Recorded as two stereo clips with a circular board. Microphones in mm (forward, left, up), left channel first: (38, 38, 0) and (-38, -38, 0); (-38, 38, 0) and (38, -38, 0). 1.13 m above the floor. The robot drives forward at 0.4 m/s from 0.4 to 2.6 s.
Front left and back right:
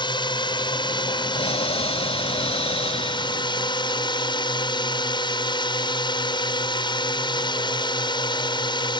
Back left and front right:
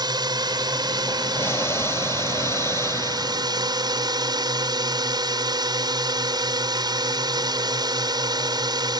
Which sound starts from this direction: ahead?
A drone, at 0.0 s.